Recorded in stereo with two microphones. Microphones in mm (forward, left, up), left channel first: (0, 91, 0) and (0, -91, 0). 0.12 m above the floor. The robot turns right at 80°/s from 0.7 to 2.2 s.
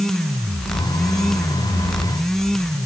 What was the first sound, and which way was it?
Only background noise.